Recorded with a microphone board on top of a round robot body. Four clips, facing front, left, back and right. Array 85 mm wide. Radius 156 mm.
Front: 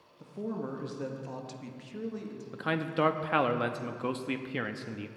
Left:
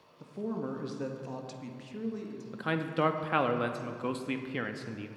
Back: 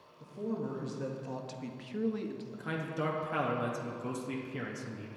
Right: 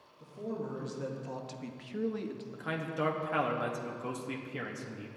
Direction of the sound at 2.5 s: 35° left.